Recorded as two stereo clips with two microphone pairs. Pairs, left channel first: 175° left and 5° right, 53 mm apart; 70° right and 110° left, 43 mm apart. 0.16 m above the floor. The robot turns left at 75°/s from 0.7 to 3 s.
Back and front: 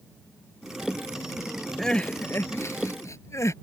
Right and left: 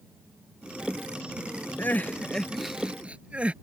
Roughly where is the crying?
Right.